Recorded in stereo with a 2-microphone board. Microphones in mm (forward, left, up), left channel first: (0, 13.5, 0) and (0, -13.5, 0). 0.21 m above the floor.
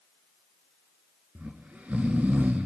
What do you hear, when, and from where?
1.4 s snoring: 80° right, 0.6 m